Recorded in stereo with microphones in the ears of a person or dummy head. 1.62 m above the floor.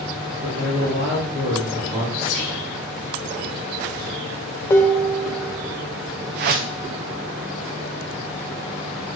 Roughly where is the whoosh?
Right.